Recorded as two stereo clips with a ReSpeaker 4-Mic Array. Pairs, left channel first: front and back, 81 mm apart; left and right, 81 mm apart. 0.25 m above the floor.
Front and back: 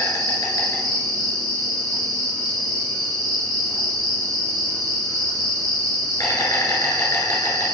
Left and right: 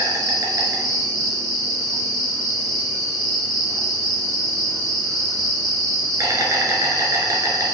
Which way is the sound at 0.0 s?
40° right.